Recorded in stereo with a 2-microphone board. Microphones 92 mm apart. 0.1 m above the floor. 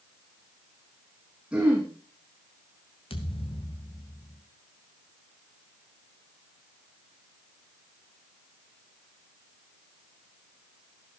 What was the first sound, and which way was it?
Throat clearing, 10° right (ahead or behind).